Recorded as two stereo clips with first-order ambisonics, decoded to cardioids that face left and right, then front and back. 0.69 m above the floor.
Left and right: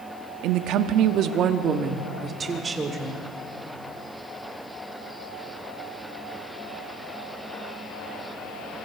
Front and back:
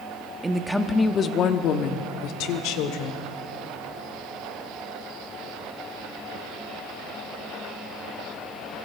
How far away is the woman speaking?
About 1.0 m.